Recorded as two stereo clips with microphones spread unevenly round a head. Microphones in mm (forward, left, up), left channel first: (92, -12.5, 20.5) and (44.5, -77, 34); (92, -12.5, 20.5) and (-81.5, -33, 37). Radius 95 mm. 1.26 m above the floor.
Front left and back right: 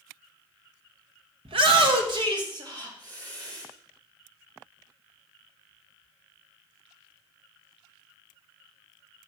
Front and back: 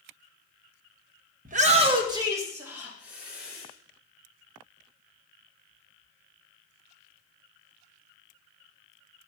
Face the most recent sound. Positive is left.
turn(degrees=-90)